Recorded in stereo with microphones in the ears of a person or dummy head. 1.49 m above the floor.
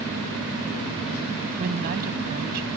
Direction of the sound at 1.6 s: 55° right (ahead or behind).